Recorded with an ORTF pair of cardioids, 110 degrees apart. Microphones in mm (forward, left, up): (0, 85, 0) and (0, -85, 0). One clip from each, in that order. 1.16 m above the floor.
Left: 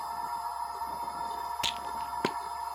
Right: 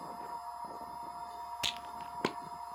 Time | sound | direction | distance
0.0 | a machine running | 55° left | 1.2 m
1.6 | a rattle | 15° left | 0.7 m